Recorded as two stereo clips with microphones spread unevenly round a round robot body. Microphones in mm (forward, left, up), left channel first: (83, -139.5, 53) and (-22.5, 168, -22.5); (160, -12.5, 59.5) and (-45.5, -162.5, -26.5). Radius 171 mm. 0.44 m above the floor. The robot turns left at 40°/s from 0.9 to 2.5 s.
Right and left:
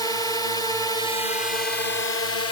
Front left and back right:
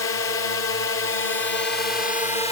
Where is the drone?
20° left; by 2.5 s 45° right.